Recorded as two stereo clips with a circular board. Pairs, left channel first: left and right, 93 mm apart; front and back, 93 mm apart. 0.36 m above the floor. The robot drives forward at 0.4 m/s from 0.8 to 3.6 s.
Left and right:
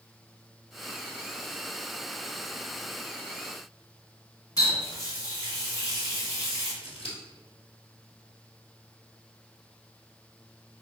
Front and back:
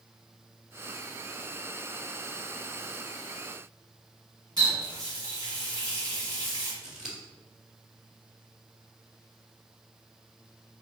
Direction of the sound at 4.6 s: 140° left.